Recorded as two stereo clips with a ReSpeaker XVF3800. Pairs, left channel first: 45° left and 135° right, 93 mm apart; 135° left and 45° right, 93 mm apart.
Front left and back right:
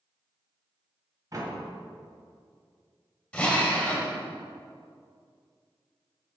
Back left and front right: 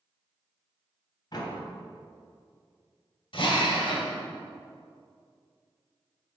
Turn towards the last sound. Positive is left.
turn(degrees=120)